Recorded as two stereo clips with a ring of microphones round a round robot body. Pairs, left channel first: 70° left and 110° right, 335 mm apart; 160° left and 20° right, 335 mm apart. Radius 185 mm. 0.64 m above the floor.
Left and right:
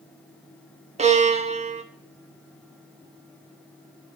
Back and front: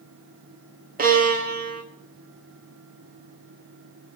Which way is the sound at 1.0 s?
60° right.